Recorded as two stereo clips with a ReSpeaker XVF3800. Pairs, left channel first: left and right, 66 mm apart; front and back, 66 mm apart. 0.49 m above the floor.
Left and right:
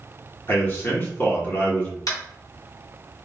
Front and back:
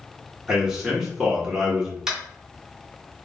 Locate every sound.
0.5 s a man speaking: 110° left, 1.0 m
2.1 s tapping: 100° left, 1.0 m